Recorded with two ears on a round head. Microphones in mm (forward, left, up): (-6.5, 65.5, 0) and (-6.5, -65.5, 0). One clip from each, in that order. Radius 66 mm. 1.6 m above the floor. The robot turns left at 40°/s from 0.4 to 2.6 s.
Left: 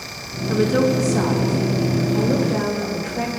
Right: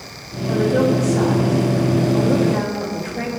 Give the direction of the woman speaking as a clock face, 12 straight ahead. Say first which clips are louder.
Right 1 dB; 9 o'clock.